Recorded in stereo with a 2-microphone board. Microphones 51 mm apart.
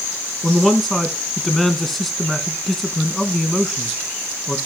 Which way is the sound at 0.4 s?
Centre (ahead or behind).